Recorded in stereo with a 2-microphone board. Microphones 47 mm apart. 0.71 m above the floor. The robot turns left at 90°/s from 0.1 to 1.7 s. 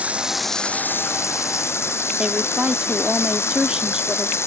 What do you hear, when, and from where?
0.0 s running water: 150° right; by 4.5 s 65° left
2.2 s a woman speaking: 20° right (ahead or behind)